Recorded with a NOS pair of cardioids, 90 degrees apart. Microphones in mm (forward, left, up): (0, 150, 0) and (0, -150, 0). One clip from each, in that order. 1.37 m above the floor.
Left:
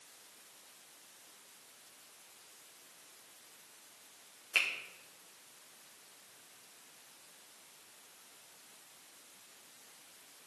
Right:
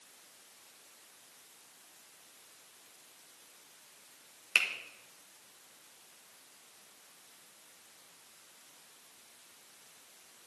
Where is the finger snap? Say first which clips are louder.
Right 3 dB; 35° right, 1.8 m.